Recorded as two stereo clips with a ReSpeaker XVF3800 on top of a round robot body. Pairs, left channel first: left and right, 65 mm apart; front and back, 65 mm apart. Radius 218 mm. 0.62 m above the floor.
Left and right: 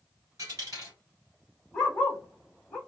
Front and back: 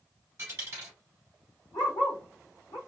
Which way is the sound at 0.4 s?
130° right.